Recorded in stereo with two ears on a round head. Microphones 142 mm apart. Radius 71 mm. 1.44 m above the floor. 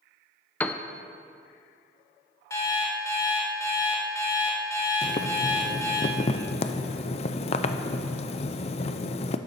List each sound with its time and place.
0.6 s a piano: 10° left (ahead or behind), 0.5 m
2.5 s an alarm clock: 20° left (ahead or behind), 1.8 m
5.0 s boiling: 40° left (ahead or behind), 0.5 m